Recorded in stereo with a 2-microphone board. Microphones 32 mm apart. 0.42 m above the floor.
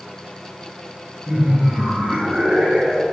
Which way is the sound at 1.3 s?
60° right (ahead or behind).